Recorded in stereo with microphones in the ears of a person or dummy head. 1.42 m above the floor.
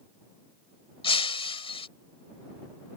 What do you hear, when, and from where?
1.0 s breaking glass: 30° left (ahead or behind)